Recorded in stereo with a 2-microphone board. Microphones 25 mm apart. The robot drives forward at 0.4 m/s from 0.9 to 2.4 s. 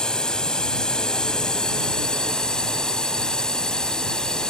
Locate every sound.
0.0 s a drone: 40° left (ahead or behind); by 4.5 s 35° left (ahead or behind)